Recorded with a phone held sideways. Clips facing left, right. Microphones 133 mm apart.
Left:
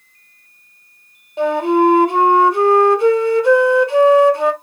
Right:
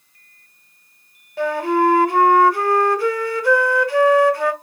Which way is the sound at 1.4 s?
20° left (ahead or behind).